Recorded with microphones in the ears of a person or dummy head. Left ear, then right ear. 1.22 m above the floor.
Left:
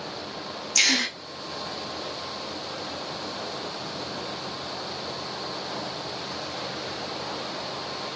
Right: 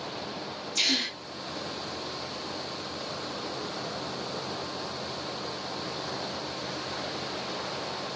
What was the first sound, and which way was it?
A gasp, 55° left (ahead or behind).